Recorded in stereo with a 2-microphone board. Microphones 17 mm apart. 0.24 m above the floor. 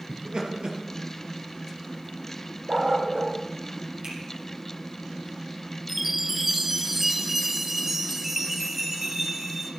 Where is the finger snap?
45° right (ahead or behind), 7 m.